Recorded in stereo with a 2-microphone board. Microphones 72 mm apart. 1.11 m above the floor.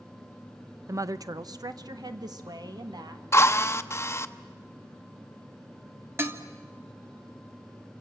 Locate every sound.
0.9 s a woman speaking: 45° right (ahead or behind), 0.6 m; by 3.2 s 65° right (ahead or behind), 2 m
3.3 s a drill: 35° left (ahead or behind), 0.8 m
6.2 s dishes clattering: 35° right (ahead or behind), 1.5 m